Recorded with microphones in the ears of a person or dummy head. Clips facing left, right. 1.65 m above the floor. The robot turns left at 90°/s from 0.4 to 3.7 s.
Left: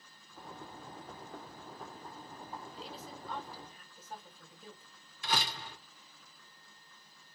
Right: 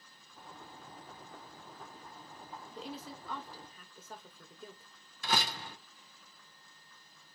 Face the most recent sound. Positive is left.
turn(degrees=-45)  # may be behind; listen again after turning